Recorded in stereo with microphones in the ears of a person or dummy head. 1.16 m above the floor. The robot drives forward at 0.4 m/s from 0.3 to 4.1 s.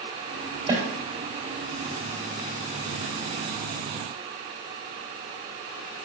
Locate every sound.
0.7 s a snare drum: 30° right (ahead or behind), 2 m